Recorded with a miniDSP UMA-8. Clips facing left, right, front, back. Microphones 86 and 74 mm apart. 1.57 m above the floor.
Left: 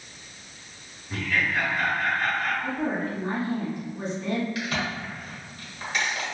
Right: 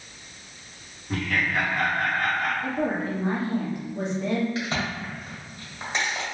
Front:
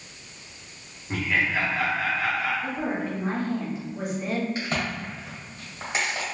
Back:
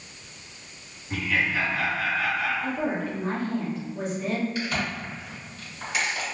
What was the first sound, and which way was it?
Laughter, 60° right.